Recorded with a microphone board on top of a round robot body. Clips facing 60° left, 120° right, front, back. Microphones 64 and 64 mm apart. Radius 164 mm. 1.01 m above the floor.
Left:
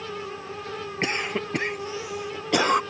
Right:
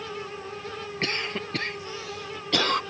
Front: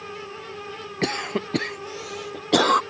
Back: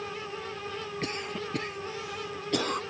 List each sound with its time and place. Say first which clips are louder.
1.0 s a cough: left 3 dB, front 12 dB; 15° right